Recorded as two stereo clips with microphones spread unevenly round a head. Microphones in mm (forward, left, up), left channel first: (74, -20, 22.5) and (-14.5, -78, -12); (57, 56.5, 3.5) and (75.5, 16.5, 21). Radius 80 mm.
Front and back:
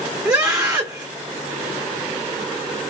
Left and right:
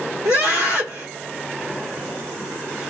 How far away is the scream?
About 1.4 m.